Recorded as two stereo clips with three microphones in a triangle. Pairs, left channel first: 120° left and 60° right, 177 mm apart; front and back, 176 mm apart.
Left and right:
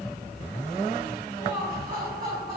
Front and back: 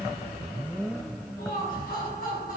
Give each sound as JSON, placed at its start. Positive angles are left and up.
{"t": 1.4, "sound": "laughter", "azimuth_deg": -30, "distance_m": 4.0}